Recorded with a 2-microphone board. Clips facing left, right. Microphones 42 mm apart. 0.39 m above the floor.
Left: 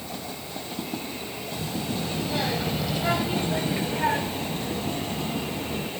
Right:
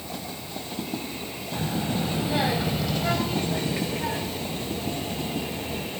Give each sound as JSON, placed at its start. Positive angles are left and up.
{"t": 1.5, "sound": "a child speaking", "side_deg": -40, "distance_m": 1.3}